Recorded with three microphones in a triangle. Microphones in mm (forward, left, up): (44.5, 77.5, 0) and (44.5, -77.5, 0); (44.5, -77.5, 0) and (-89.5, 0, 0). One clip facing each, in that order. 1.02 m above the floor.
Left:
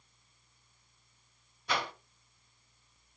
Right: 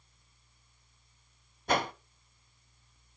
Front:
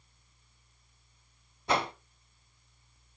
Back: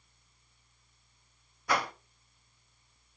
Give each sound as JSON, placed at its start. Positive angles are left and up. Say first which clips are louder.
{"t": 1.7, "sound": "a whoosh", "louder": "right 5 dB, front 2 dB", "azimuth_deg": -85, "distance_m": 0.9}